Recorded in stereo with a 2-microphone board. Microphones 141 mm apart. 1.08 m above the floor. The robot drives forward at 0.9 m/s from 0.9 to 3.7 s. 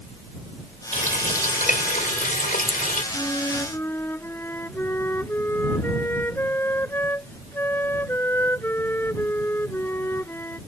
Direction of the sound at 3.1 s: 15° left (ahead or behind).